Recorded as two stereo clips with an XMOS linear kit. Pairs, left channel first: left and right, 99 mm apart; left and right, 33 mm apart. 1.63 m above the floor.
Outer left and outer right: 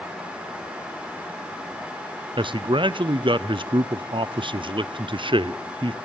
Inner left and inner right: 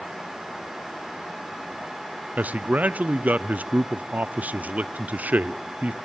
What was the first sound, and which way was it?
A man speaking, 55° right (ahead or behind).